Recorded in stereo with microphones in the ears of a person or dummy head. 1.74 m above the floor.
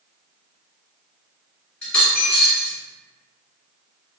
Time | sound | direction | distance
1.8 | a dropped coin | 5° left (ahead or behind) | 1.1 m